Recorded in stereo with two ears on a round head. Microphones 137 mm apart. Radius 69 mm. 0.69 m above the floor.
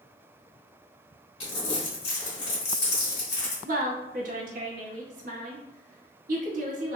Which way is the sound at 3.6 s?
55° right (ahead or behind).